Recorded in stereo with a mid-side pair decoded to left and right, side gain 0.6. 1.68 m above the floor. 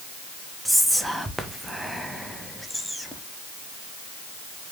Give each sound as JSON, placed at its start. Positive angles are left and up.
{"t": 0.7, "sound": "whispering", "azimuth_deg": 0, "distance_m": 0.5}